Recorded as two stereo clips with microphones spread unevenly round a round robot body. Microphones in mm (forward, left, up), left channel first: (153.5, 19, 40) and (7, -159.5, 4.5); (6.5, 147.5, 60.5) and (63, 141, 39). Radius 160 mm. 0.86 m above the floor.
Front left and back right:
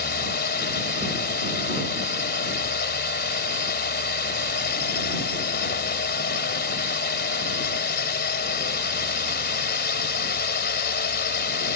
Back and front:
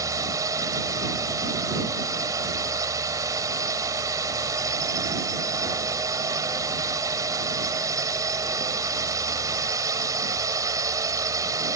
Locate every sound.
0.0 s a drone: 5° left